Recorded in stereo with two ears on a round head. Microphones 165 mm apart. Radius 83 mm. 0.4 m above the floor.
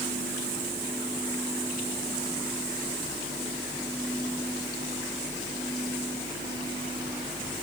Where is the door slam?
I don't hear a door slam.